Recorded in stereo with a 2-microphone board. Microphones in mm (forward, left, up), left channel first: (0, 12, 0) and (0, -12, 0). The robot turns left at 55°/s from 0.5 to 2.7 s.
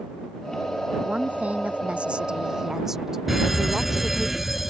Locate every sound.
1.0 s a woman speaking: 60° right; by 4.3 s 155° right
3.3 s a fire alarm: 5° right (ahead or behind)